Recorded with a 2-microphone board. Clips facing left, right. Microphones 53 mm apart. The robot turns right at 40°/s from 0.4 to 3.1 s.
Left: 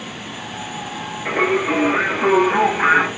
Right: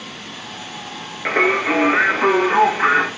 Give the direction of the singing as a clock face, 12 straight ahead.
2 o'clock.